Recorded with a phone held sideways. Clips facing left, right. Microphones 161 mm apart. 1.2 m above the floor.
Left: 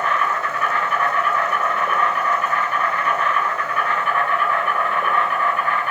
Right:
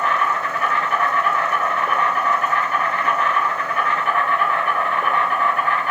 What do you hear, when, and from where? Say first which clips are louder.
0.0 s an insect: right 1 dB; 40° right (ahead or behind), 2.5 m